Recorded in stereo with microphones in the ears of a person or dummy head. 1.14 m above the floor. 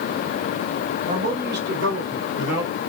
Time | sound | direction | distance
1.1 | a man speaking | 35° right (ahead or behind) | 1.0 m